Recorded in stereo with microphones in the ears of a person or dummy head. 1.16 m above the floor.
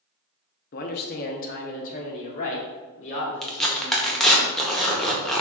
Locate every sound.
0.7 s a man speaking: 45° left (ahead or behind), 0.5 m; by 4.4 s 35° left (ahead or behind), 2.5 m
3.4 s tearing paper: 5° left (ahead or behind), 0.6 m